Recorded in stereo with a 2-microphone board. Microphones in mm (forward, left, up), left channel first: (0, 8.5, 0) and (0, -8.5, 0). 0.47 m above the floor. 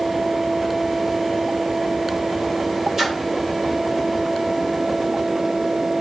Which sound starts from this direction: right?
A splash, at 3.0 s.